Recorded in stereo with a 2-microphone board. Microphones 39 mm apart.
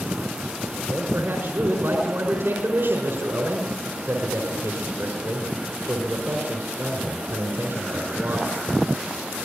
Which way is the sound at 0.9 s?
70° right (ahead or behind).